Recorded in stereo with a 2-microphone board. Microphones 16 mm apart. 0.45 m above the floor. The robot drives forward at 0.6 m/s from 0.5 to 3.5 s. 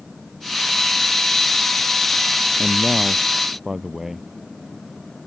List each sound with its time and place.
2.6 s a man speaking: 25° right (ahead or behind)